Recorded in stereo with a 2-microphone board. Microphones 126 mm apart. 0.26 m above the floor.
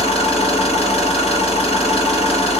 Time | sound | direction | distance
0.0 | an engine running | 60° left (ahead or behind) | 1.4 m